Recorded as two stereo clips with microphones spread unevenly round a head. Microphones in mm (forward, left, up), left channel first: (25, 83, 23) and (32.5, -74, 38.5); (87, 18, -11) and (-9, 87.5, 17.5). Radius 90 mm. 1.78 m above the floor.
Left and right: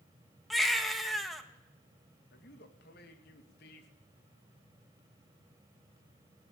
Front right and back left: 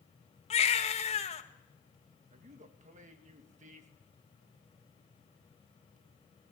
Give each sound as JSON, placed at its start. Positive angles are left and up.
{"t": 0.5, "sound": "a baby crying", "azimuth_deg": 0, "distance_m": 1.9}
{"t": 2.3, "sound": "a man speaking", "azimuth_deg": 125, "distance_m": 3.0}